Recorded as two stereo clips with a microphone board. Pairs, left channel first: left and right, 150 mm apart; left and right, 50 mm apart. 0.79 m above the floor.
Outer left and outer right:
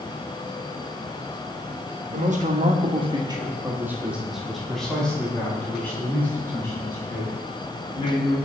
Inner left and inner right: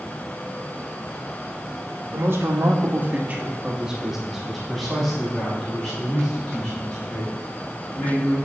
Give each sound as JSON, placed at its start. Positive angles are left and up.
{"t": 2.1, "sound": "a man speaking", "side_deg": -55, "distance_m": 1.2}